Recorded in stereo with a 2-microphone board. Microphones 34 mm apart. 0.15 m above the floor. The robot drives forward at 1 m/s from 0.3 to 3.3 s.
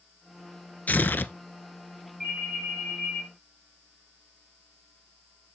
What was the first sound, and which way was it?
Tearing paper, 50° left (ahead or behind).